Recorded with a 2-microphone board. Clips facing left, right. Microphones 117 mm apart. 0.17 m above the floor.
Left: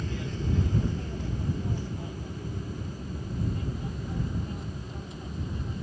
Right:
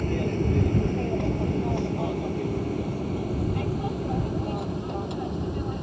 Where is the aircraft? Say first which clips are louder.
Right 9 dB; 55° right (ahead or behind); by 5.8 s 65° right (ahead or behind).